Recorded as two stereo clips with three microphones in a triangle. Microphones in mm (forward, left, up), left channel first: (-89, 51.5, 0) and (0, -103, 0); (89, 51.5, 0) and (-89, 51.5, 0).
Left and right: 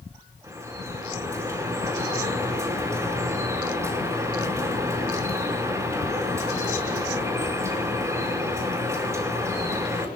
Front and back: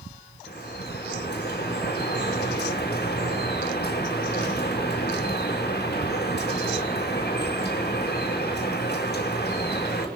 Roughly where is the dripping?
Ahead.